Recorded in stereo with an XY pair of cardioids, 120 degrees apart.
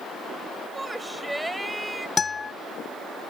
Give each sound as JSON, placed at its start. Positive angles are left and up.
{"t": 0.8, "sound": "a shout", "azimuth_deg": -10}
{"t": 2.2, "sound": "a guitar", "azimuth_deg": 25}